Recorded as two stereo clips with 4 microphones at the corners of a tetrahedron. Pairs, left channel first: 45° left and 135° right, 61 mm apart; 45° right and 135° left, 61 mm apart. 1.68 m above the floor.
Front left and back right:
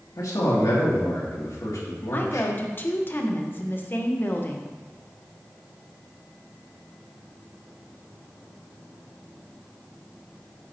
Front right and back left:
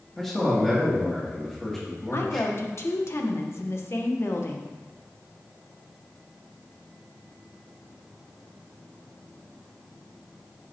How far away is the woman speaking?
About 1.1 m.